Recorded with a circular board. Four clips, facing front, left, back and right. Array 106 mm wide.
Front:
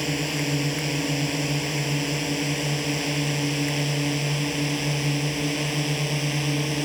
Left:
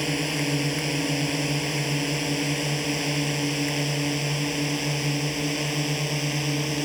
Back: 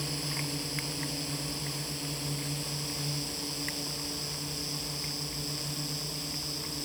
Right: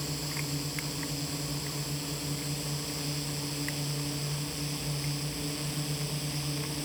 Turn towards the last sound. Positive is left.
turn(degrees=40)